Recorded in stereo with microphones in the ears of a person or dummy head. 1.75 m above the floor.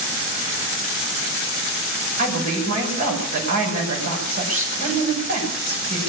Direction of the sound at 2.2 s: 45° right (ahead or behind).